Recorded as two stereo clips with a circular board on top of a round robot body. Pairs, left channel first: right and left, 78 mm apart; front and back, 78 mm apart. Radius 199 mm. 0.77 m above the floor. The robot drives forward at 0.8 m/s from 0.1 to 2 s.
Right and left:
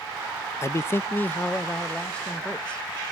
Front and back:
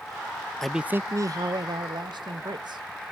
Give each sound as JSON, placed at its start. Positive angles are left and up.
{"t": 0.6, "sound": "a man speaking", "azimuth_deg": -80, "distance_m": 0.6}